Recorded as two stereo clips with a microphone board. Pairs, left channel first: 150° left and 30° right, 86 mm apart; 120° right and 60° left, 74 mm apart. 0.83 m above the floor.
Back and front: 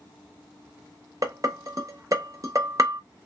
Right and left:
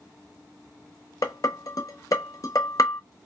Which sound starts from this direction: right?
Dishes clattering, at 1.2 s.